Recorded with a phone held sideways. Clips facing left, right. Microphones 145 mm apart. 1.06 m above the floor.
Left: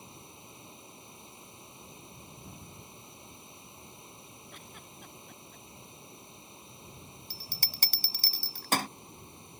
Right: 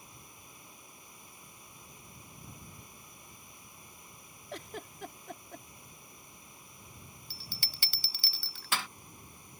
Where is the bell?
40° left (ahead or behind).